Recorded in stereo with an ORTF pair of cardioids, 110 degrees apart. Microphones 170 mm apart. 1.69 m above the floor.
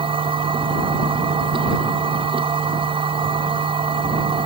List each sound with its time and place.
0.0 s a machine running: 30° right